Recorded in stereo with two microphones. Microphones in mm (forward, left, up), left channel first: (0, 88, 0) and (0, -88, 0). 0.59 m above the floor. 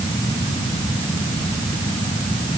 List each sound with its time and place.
Only background noise.